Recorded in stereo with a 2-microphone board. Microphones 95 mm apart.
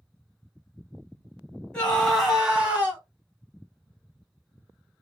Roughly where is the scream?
Centre.